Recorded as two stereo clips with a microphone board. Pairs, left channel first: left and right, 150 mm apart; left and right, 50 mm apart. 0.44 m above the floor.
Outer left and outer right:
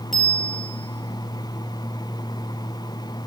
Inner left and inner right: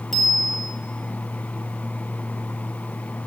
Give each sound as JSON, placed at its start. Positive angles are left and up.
{"t": 0.1, "sound": "a bicycle bell", "side_deg": 0, "distance_m": 8.0}